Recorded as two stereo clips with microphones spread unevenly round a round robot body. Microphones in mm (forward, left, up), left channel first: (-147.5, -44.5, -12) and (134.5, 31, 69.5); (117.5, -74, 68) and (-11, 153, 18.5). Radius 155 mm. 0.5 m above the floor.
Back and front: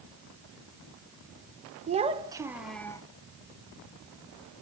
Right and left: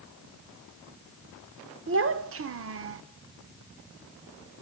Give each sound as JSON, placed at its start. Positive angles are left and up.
{"t": 1.9, "sound": "a child speaking", "azimuth_deg": 90, "distance_m": 1.3}